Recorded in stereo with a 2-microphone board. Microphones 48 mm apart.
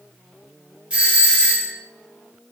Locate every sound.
0.9 s a doorbell: 25° right (ahead or behind), 1.1 m